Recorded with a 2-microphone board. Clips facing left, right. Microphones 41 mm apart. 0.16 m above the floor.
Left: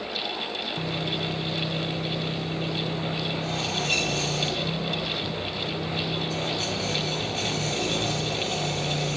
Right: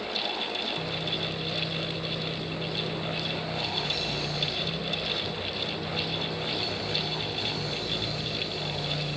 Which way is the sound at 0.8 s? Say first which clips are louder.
Left 2 dB; 75° left (ahead or behind).